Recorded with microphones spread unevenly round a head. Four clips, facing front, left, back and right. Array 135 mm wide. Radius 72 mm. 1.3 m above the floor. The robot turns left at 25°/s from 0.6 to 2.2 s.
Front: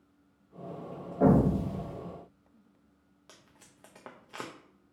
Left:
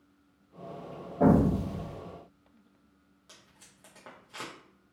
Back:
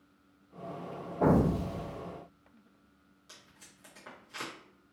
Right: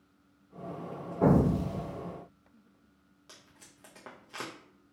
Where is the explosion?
65° left, 1.8 m; by 2.0 s 45° left, 1.8 m.